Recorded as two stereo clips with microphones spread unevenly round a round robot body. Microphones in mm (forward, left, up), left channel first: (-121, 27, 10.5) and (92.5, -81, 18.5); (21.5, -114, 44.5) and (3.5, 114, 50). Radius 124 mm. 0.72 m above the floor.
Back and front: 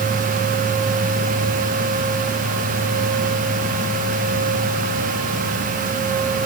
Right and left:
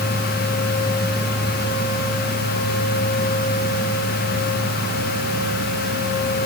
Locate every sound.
Only background noise.